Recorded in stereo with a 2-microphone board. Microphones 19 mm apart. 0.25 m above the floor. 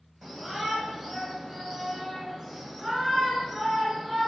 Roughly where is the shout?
Right.